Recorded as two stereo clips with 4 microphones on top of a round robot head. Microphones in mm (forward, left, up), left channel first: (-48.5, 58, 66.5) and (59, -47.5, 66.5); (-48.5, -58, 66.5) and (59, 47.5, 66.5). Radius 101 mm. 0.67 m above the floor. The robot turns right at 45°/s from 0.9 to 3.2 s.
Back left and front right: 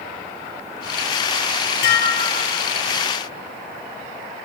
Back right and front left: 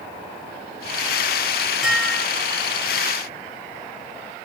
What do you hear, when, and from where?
1.8 s dishes clattering: 130° left, 3.5 m; by 2.6 s 170° left, 3.5 m